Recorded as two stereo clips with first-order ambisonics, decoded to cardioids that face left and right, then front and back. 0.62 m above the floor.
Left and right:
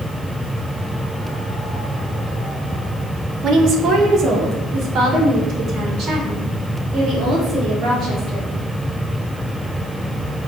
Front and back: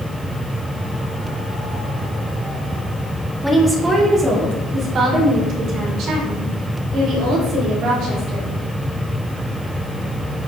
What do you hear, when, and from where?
3.4 s a woman speaking: 100° right, 1.0 m; by 8.6 s 145° right, 3 m